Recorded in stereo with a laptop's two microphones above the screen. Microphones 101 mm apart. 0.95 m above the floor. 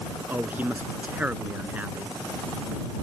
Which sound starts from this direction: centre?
A man speaking, at 0.3 s.